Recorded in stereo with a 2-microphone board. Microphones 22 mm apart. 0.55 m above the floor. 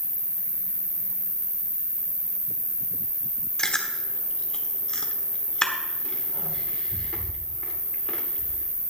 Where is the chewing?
35° left (ahead or behind), 1.4 m.